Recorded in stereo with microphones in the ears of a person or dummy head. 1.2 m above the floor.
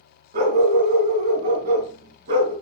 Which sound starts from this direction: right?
A dog barking, at 0.3 s.